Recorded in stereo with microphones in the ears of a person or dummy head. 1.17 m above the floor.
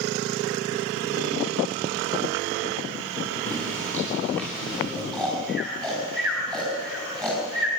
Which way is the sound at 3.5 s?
10° left (ahead or behind).